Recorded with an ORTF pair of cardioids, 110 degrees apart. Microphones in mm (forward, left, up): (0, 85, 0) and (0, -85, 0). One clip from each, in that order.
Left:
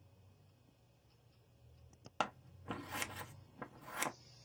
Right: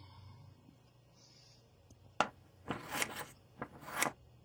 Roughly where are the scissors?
Ahead right.